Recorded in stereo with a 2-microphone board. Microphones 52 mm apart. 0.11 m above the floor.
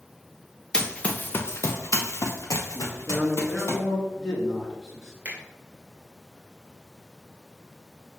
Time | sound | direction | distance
0.7 | running footsteps | 10° left (ahead or behind) | 0.7 m
2.7 | a man speaking | 10° left (ahead or behind) | 1.6 m
5.2 | a finger snap | 30° right (ahead or behind) | 1.5 m